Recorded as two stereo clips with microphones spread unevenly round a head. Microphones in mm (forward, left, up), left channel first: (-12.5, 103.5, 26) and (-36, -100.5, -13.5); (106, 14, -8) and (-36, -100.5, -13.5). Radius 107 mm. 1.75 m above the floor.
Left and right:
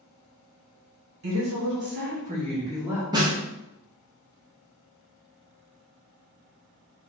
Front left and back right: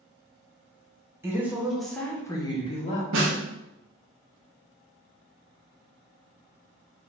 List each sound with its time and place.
1.2 s a woman speaking: 65° right, 1.5 m; by 3.0 s 10° right, 1.2 m
3.1 s a snare drum: 170° right, 0.9 m